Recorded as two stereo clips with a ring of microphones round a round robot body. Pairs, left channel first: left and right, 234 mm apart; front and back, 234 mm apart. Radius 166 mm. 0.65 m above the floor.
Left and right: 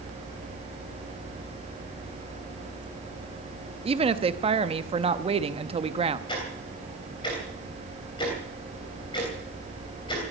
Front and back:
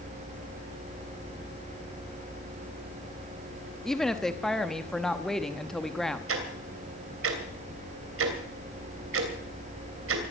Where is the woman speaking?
85° right, 0.8 m.